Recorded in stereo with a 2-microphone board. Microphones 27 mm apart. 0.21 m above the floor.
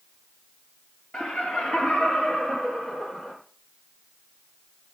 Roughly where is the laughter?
Left.